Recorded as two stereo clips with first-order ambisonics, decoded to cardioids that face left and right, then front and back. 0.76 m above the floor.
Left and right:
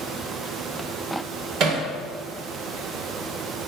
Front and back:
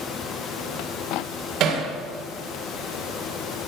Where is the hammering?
135° right, 2 m.